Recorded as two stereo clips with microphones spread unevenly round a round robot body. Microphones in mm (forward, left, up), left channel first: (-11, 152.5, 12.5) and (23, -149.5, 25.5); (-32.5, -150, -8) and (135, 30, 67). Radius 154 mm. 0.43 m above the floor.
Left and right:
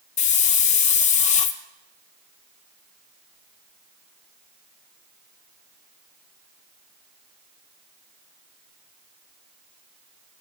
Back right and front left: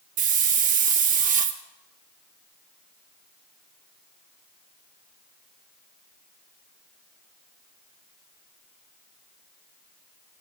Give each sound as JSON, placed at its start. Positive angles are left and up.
{"t": 0.2, "sound": "a hiss", "azimuth_deg": 105, "distance_m": 0.7}